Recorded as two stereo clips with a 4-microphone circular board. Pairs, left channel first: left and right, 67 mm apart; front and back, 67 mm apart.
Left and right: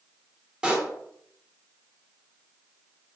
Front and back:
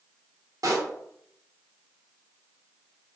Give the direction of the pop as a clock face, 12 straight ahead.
6 o'clock.